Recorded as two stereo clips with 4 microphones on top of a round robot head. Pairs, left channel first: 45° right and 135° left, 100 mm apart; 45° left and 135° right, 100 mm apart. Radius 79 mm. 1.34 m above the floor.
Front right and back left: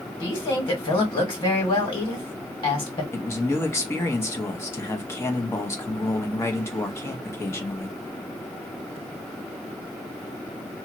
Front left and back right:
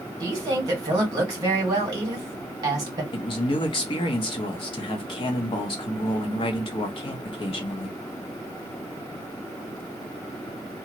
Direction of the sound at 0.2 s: 80° right.